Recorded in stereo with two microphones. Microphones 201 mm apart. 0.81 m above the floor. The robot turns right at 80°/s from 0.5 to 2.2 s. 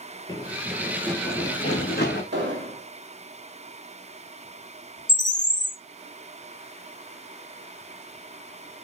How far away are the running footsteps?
About 0.8 m.